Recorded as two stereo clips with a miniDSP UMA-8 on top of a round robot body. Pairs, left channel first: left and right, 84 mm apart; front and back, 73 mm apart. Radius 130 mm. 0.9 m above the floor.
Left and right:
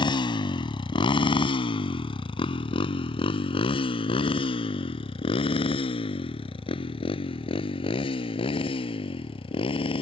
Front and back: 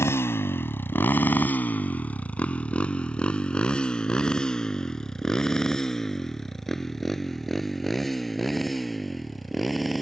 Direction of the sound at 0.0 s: 55° left.